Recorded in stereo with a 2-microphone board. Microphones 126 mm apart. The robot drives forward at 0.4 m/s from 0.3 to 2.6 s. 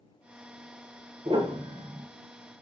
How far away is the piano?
About 0.8 m.